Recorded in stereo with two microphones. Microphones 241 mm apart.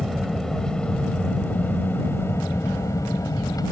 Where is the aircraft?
Centre (ahead or behind); by 3.7 s 15° left (ahead or behind).